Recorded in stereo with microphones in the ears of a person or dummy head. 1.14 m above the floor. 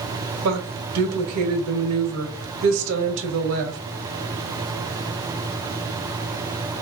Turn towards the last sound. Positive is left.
turn(degrees=-85)